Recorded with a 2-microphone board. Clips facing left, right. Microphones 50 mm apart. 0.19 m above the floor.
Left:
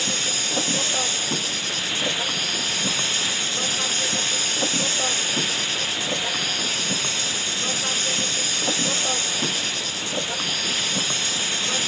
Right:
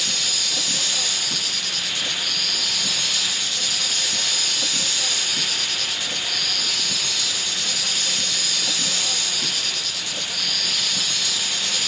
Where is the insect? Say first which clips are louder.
Left 1 dB; 35° left (ahead or behind).